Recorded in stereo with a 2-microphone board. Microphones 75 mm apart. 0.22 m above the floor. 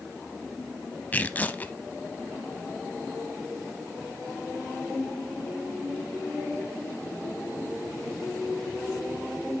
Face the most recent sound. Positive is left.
turn(degrees=25)  # may be behind; listen again after turning